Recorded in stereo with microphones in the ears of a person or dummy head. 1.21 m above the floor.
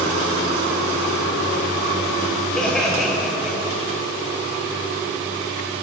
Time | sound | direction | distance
2.5 | laughter | 5° left (ahead or behind) | 5 m